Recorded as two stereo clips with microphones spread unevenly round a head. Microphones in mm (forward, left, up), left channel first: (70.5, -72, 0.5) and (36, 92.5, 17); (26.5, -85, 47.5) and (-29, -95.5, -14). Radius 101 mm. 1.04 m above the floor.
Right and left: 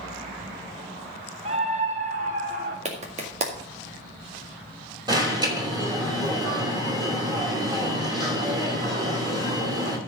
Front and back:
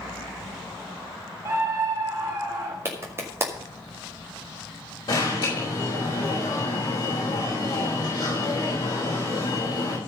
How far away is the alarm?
About 5.5 m.